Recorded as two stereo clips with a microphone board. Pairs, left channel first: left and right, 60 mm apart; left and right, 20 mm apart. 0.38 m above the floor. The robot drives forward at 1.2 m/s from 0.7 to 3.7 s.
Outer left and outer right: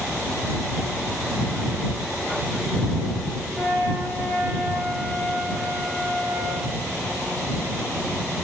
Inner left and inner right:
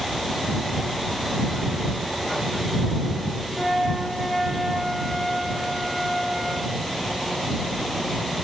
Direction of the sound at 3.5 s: Centre (ahead or behind).